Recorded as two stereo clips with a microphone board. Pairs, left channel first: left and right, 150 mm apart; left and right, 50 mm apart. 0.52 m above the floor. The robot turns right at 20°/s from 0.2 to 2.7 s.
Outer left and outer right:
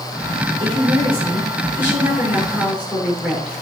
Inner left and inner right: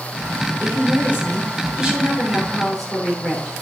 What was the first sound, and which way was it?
A woman speaking, 35° right.